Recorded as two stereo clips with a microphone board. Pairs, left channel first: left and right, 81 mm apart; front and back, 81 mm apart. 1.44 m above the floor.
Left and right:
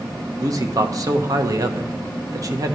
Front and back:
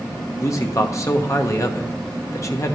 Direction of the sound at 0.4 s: 50° right.